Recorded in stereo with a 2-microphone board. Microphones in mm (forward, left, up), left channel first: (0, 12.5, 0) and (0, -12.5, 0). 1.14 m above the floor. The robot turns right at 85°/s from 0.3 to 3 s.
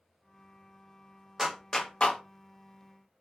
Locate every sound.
1.4 s a clap: 15° right (ahead or behind), 0.6 m; by 2.2 s 55° left (ahead or behind), 0.6 m